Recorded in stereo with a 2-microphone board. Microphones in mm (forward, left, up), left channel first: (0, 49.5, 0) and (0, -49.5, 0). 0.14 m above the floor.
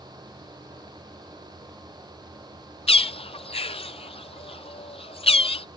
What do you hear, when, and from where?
2.9 s a bird: 80° left